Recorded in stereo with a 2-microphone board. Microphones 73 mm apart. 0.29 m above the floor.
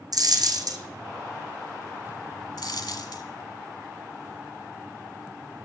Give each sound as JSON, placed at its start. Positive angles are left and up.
{"t": 0.1, "sound": "a dropped coin", "side_deg": -60, "distance_m": 1.0}
{"t": 2.6, "sound": "a dropped coin", "side_deg": 70, "distance_m": 1.1}